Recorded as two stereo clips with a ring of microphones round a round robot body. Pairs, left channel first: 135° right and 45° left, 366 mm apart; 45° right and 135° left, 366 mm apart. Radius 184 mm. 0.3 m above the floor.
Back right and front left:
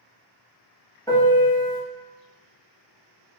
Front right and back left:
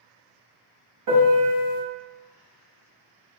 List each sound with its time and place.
1.1 s a piano: 145° left, 1.4 m